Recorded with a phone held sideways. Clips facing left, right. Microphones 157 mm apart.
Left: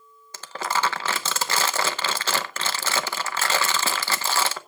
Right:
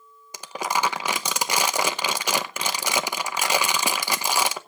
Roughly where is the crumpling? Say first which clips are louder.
Right 1 dB; centre.